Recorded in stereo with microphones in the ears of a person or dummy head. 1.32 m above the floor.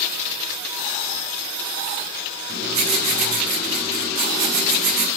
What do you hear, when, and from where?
2.5 s writing: 55° right (ahead or behind), 5.5 m